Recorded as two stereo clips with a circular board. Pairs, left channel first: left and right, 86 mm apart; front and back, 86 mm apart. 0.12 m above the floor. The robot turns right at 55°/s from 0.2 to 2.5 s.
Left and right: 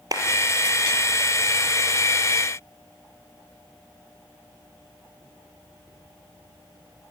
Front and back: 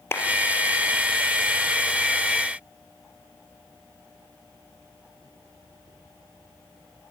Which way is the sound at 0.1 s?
55° right.